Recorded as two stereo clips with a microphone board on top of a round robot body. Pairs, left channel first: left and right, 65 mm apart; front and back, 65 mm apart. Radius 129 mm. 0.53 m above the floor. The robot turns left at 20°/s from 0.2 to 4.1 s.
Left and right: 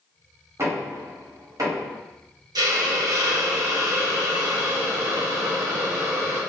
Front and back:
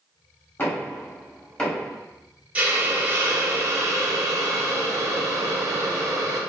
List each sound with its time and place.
0.6 s knocking: 50° right, 1.7 m; by 1.9 s 75° right, 1.7 m
2.5 s a hiss: 105° right, 0.8 m; by 6.4 s 140° right, 0.8 m